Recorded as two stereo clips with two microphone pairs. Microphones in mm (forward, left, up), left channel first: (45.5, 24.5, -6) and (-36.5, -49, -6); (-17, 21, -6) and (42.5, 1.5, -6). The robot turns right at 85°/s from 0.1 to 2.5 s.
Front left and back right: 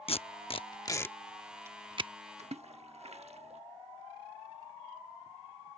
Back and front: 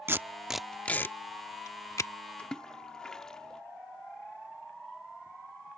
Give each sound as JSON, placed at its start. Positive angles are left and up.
{"t": 0.1, "sound": "tape being pulled", "azimuth_deg": 25}
{"t": 2.4, "sound": "a splash", "azimuth_deg": -125}